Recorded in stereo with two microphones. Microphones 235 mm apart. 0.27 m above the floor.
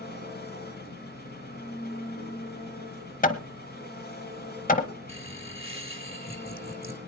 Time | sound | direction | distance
0.0 | an engine running | 45° left (ahead or behind) | 2 m
3.2 | hammering | 35° left (ahead or behind) | 0.9 m
5.1 | laughter | 25° right (ahead or behind) | 1.1 m